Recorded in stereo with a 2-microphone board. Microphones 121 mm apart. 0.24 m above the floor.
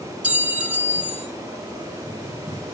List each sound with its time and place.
0.2 s a clink: 10° right (ahead or behind), 3.5 m